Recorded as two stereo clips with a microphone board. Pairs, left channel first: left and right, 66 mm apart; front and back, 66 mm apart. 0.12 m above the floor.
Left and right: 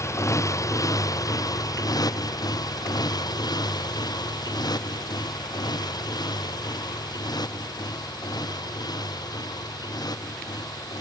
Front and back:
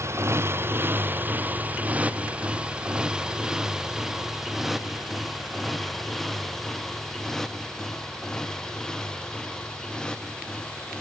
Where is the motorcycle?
135° left; by 11.0 s 75° left.